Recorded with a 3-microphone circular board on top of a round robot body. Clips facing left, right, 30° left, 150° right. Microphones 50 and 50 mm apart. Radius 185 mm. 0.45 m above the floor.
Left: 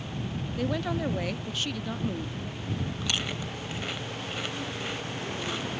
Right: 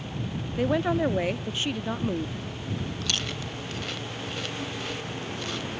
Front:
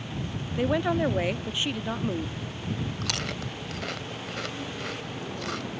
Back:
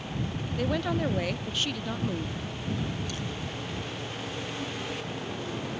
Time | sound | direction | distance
0.6 | a woman speaking | 30° right | ?
3.0 | chewing | 15° left | ?